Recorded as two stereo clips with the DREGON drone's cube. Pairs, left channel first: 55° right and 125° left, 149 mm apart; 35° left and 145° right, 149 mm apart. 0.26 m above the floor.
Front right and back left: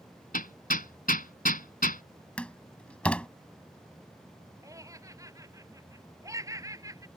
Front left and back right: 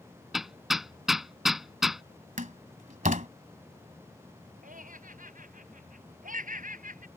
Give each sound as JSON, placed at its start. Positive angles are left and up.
{"t": 0.3, "sound": "hammering", "azimuth_deg": -55}
{"t": 2.4, "sound": "a door slam", "azimuth_deg": -135}
{"t": 4.6, "sound": "laughter", "azimuth_deg": -170}